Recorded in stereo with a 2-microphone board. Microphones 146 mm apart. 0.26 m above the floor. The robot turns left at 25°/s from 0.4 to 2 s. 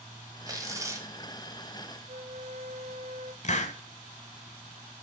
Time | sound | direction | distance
0.5 | tearing paper | 25° right (ahead or behind) | 1.6 m
2.1 | a flute | 65° right (ahead or behind) | 0.7 m
3.4 | a hiss | 55° left (ahead or behind) | 0.8 m